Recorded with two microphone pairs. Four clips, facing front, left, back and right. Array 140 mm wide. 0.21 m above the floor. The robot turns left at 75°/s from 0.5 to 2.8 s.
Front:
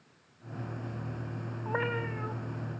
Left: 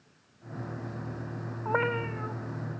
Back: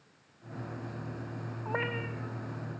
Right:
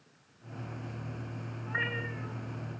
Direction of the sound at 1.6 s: 110° left.